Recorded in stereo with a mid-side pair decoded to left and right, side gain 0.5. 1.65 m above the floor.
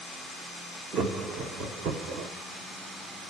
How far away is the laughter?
About 2 m.